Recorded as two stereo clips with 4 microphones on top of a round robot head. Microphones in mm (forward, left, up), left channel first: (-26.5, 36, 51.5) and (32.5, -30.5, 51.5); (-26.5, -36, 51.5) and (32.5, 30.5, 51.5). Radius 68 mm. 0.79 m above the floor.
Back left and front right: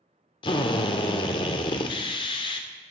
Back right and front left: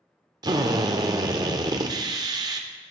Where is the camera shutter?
I don't hear a camera shutter.